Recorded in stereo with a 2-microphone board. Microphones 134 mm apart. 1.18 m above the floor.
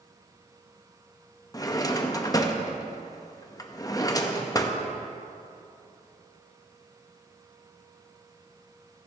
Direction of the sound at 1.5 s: 25° left (ahead or behind).